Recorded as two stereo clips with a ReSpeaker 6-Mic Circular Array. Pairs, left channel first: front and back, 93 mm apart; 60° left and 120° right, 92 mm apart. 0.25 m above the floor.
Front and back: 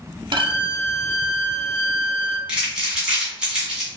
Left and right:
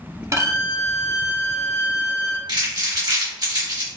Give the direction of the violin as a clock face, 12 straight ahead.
6 o'clock.